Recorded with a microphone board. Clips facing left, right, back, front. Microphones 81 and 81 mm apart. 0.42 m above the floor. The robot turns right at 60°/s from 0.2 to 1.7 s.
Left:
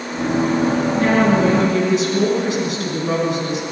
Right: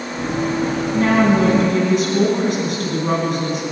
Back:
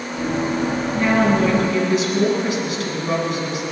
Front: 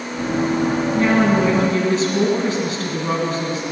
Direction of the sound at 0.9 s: 100° right.